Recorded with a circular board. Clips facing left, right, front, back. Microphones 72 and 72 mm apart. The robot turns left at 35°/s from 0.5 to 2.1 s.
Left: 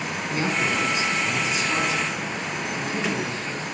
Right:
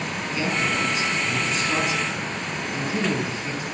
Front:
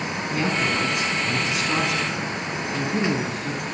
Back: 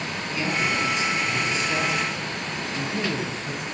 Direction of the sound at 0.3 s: 40° left.